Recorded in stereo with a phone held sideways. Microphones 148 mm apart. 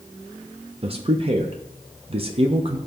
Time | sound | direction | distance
0.8 | a man speaking | 40° right (ahead or behind) | 0.6 m